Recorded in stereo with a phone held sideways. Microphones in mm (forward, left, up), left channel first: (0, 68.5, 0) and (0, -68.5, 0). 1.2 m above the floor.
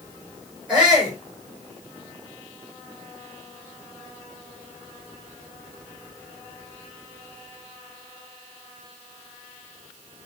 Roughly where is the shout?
Centre.